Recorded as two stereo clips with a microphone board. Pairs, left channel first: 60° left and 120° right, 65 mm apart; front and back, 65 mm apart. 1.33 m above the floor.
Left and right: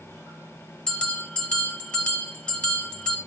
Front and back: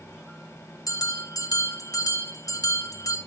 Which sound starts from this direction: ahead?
A bell, at 0.9 s.